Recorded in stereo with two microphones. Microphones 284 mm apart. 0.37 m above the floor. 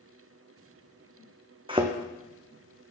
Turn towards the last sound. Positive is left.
turn(degrees=-20)  # may be behind; listen again after turning